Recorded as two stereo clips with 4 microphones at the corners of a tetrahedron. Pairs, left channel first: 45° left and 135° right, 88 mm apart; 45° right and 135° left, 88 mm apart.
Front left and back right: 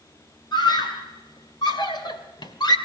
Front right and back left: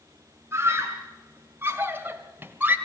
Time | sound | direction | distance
0.5 | a scream | 75° left | 3.5 m